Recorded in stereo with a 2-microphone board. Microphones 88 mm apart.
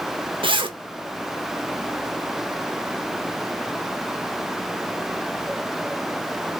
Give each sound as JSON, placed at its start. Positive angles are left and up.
{"t": 0.4, "sound": "a zipper", "side_deg": -75, "distance_m": 0.7}